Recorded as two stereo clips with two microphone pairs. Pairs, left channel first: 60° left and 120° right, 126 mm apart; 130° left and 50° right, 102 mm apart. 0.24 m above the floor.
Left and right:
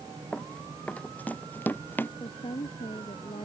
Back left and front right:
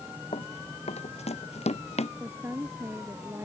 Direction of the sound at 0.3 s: 140° left.